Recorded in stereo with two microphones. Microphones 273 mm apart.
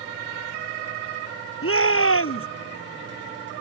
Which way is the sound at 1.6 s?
55° left (ahead or behind).